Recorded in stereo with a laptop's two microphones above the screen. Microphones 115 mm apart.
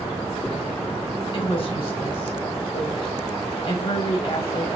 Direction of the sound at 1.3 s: 50° left (ahead or behind).